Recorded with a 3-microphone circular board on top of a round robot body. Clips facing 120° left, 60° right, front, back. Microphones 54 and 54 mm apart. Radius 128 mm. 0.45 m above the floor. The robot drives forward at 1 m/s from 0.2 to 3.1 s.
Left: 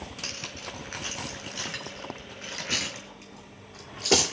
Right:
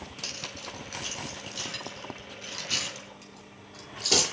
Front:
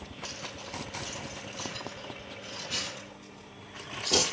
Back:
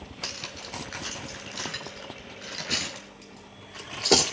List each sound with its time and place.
0.2 s cutlery clinking: 175° left, 3.5 m; by 4.2 s straight behind, 6 m